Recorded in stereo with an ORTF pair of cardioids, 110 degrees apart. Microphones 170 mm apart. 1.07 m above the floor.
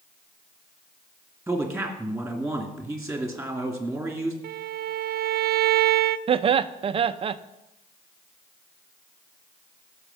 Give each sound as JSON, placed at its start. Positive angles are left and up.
{"t": 1.5, "sound": "a man speaking", "azimuth_deg": -5, "distance_m": 2.5}
{"t": 4.4, "sound": "a violin", "azimuth_deg": -70, "distance_m": 0.8}
{"t": 6.3, "sound": "laughter", "azimuth_deg": -35, "distance_m": 0.5}